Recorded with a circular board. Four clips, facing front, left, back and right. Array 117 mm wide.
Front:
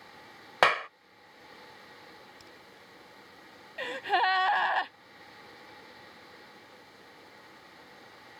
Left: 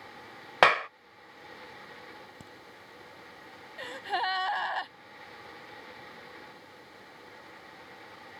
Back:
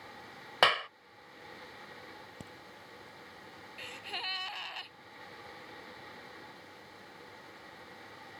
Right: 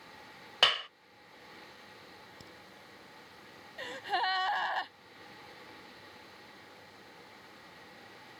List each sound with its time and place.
0.6 s a clap: 70° left
2.4 s a crack: 150° left
3.8 s a gasp: 5° left